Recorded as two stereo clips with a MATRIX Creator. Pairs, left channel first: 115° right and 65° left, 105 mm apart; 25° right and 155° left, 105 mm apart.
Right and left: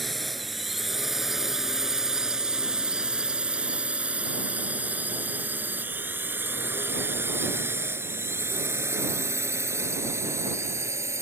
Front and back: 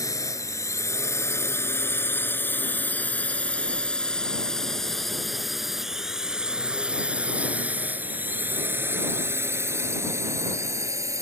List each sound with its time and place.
0.0 s a drone: 25° right; by 11.2 s 115° left